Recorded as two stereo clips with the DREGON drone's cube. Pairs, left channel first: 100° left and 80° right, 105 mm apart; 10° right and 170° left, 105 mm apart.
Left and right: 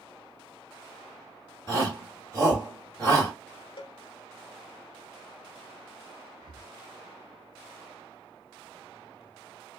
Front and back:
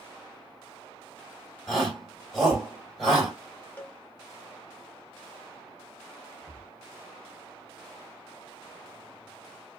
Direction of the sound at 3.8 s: 60° left.